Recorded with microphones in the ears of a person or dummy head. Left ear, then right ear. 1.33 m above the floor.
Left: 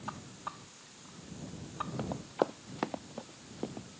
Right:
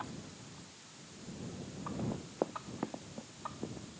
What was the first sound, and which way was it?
Running footsteps, 75° left (ahead or behind).